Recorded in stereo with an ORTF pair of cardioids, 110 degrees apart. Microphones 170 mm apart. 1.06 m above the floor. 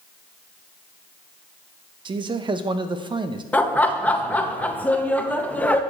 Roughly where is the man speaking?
Ahead right.